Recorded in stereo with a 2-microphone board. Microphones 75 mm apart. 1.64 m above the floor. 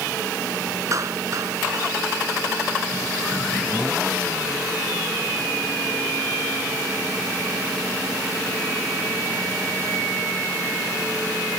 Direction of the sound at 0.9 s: 45° right (ahead or behind).